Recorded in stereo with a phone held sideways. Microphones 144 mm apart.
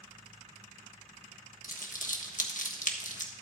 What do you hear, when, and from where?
1.6 s crumpling: 65° left (ahead or behind), 1.3 m